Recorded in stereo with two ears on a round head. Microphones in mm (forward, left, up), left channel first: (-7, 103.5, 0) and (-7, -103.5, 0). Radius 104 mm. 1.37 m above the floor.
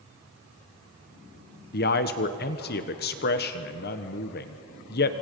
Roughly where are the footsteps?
No footsteps in this recording.